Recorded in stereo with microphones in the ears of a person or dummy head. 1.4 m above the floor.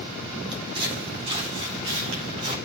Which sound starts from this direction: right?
Footsteps, at 0.5 s.